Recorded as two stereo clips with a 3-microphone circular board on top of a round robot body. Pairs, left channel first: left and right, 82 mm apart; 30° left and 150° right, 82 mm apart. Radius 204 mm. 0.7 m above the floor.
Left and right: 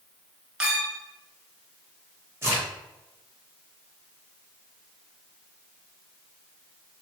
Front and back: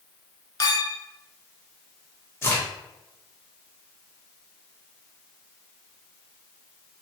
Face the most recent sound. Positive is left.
turn(degrees=-30)